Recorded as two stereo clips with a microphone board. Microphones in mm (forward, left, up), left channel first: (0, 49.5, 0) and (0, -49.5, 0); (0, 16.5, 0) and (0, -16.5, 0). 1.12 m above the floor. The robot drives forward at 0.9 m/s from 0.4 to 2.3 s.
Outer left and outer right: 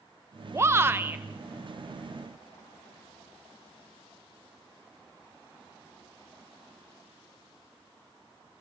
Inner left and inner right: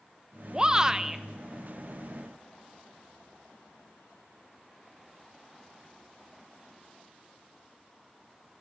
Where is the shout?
25° right (ahead or behind), 0.6 m; by 1.2 s 15° right (ahead or behind), 0.9 m.